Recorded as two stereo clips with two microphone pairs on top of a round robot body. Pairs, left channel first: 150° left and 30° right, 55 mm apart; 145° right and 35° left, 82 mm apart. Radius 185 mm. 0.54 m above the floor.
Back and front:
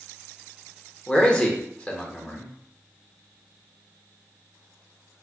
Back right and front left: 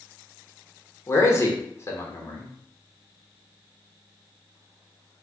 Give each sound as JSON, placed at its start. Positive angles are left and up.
{"t": 1.1, "sound": "a man speaking", "azimuth_deg": -165, "distance_m": 1.2}